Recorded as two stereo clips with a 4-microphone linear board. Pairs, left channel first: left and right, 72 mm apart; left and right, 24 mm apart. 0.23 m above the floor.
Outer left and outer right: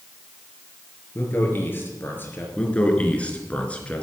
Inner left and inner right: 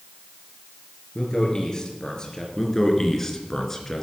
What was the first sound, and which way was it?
A man speaking, 30° left (ahead or behind).